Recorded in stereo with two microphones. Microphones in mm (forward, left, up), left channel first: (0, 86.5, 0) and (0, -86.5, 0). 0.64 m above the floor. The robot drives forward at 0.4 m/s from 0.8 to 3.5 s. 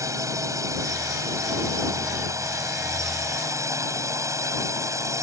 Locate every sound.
0.0 s a drone: 20° right (ahead or behind)